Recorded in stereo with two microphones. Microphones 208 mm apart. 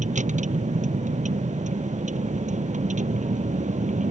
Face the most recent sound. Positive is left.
turn(degrees=-35)  # may be behind; listen again after turning